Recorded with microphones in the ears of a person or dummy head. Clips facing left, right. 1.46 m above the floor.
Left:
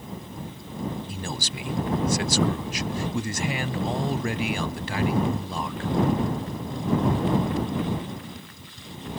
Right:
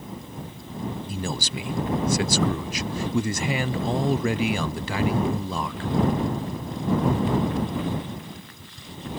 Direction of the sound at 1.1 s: 70° right (ahead or behind).